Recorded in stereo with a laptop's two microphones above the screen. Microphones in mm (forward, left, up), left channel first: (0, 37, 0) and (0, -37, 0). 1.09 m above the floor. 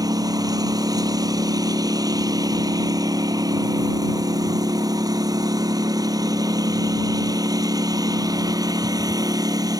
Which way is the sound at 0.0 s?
60° right (ahead or behind).